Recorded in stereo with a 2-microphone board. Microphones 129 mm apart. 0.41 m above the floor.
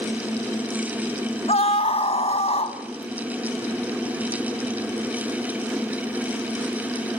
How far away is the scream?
About 3 m.